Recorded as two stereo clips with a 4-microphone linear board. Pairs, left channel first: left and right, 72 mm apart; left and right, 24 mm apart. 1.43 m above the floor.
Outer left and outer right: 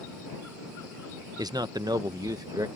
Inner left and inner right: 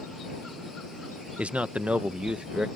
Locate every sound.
1.4 s a man speaking: 65° right (ahead or behind); by 2.7 s 55° right (ahead or behind)